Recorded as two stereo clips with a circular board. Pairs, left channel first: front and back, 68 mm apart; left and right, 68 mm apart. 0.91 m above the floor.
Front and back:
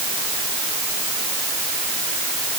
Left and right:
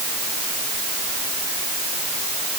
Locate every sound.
Only background noise.